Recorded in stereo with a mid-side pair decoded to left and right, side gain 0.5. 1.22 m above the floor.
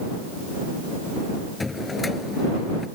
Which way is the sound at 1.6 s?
20° left.